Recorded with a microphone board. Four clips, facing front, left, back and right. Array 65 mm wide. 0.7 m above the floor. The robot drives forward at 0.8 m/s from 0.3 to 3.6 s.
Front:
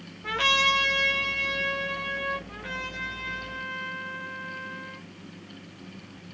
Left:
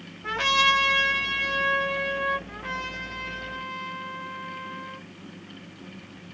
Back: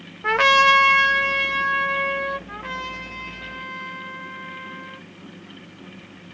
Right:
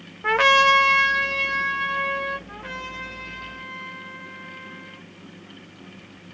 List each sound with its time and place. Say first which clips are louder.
0.2 s a trumpet: right 7 dB, back 9 dB; 135° right, 0.5 m; by 2.4 s 170° right, 2 m
2.5 s a trumpet: left 1 dB, back 5 dB; 170° left, 3 m